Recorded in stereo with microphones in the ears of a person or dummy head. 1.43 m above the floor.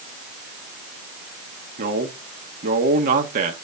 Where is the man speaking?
45° right (ahead or behind), 1.3 m.